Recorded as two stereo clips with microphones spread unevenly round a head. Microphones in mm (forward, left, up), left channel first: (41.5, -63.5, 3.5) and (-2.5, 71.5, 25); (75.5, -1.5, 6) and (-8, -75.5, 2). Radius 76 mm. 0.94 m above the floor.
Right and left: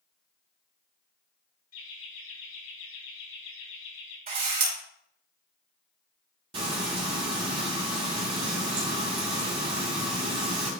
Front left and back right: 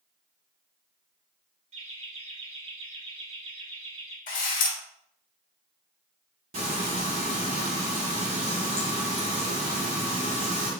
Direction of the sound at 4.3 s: 75° left.